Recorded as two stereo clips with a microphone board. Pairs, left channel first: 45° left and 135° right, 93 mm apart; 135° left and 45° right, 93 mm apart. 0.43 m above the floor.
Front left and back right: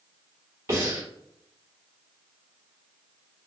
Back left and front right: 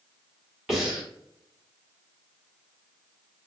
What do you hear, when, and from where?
0.7 s breathing: 130° right, 1.7 m